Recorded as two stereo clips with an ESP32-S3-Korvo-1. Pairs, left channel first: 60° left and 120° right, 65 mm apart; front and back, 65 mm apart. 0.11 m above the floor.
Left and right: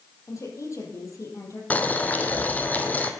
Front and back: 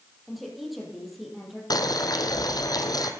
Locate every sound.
0.3 s a woman speaking: 90° left, 4 m
1.7 s boiling: 5° right, 1.2 m